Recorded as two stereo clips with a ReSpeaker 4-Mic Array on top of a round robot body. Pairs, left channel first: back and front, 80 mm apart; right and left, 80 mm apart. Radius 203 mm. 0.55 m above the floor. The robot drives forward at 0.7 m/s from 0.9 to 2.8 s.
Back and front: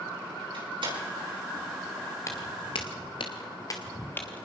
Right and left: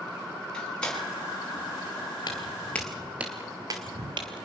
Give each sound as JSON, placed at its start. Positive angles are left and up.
{"t": 0.5, "sound": "a door slam", "azimuth_deg": -15, "distance_m": 6.0}
{"t": 2.3, "sound": "footsteps", "azimuth_deg": -125, "distance_m": 0.7}